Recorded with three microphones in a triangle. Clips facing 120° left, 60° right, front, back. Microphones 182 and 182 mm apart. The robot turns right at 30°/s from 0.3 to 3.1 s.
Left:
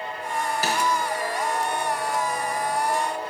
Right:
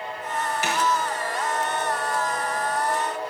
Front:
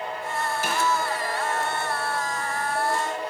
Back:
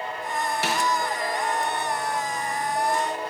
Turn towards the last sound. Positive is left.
turn(degrees=-115)